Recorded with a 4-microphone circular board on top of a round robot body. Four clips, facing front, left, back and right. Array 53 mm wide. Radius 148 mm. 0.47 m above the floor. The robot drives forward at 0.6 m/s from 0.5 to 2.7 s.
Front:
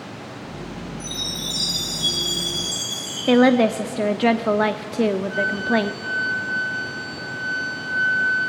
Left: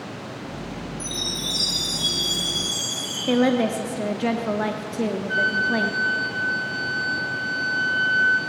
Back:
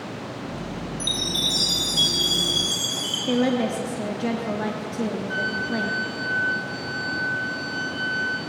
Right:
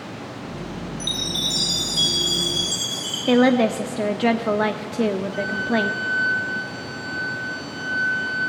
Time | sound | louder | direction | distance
1.0 | a chime | right 5 dB, back 3 dB | 150° right | 4.5 m
3.3 | a woman speaking | right 3 dB, front 7 dB | 20° right | 0.9 m
5.3 | a flute | left 2 dB, front 5 dB | 105° left | 7.5 m